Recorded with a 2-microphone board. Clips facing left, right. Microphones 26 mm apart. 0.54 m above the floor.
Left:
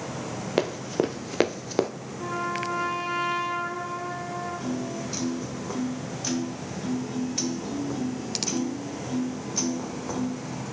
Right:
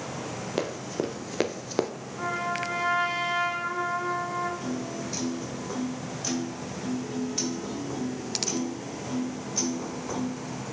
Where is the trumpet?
70° right (ahead or behind), 2.5 m.